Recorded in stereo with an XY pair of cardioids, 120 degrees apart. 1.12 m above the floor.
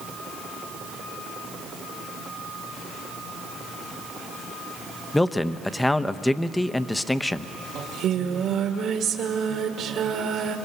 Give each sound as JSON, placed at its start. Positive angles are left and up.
{"t": 5.1, "sound": "a man speaking", "azimuth_deg": 5, "distance_m": 0.8}
{"t": 7.8, "sound": "singing", "azimuth_deg": -65, "distance_m": 2.0}